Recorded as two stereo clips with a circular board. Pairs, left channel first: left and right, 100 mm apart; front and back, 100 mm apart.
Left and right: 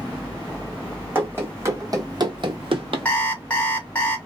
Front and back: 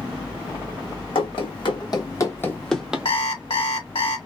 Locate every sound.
1.1 s running footsteps: 25° right, 1.2 m; by 3.1 s 105° right, 0.7 m
3.0 s an alarm clock: 15° left, 1.0 m